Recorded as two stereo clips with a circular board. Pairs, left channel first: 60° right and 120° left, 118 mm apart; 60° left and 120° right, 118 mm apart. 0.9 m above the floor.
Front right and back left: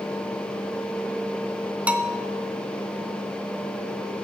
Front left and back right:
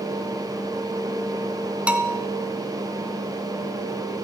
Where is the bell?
175° left, 0.5 m.